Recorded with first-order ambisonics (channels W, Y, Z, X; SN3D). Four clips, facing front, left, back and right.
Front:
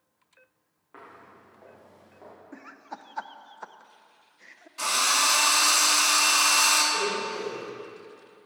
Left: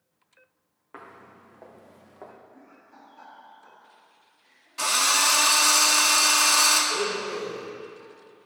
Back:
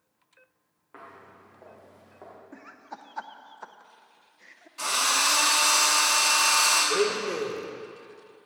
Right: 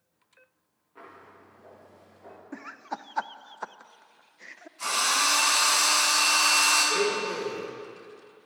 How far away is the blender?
About 2.0 m.